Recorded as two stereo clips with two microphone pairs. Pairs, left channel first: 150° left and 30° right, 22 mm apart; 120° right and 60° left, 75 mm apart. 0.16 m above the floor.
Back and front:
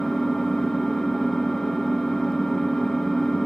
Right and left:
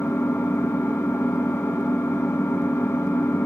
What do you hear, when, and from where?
0.0 s an engine running: 150° right, 1.7 m